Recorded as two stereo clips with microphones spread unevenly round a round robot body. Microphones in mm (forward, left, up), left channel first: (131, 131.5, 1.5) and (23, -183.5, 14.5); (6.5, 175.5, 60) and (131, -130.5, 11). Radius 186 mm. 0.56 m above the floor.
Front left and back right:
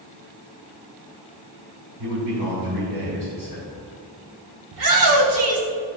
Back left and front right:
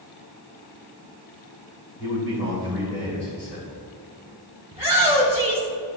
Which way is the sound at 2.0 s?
170° right.